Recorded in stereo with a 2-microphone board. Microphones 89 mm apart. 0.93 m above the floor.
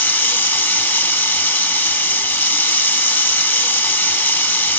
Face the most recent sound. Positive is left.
turn(degrees=25)  # may be behind; listen again after turning